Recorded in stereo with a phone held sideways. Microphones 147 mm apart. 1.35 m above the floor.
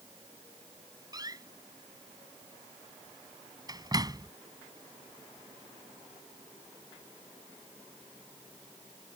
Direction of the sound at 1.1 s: 30° right (ahead or behind).